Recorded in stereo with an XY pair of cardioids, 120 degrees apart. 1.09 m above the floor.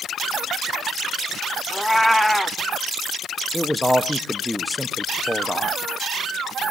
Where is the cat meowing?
Straight ahead, 0.9 m.